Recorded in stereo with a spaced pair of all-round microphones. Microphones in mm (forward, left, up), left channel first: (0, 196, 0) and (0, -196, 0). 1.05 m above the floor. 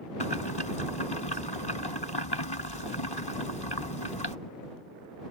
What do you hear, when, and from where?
0.2 s boiling: 75° left (ahead or behind)